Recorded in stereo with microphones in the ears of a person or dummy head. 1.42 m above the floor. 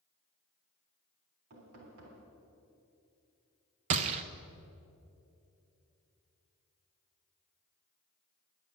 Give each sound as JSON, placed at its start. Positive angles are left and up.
{"t": 1.5, "sound": "knocking", "side_deg": -70, "distance_m": 3.5}
{"t": 3.9, "sound": "a gunshot", "side_deg": -40, "distance_m": 0.6}